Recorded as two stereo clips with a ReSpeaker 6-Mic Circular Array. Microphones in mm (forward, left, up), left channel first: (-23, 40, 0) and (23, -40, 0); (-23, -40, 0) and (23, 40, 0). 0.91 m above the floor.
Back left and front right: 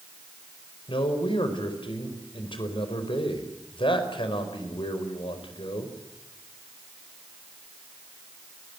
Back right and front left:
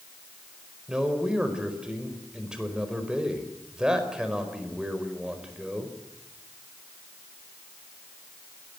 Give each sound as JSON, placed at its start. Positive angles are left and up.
{"t": 0.9, "sound": "a man speaking", "azimuth_deg": 140, "distance_m": 5.0}